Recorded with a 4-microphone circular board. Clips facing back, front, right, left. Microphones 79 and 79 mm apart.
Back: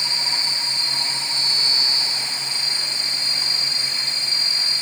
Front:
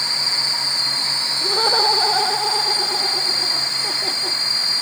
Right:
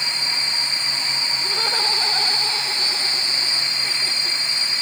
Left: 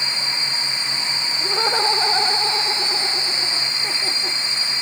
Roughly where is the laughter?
Ahead.